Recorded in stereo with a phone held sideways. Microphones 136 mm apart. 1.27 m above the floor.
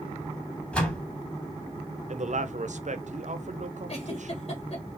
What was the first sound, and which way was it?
A door slam, 10° left (ahead or behind).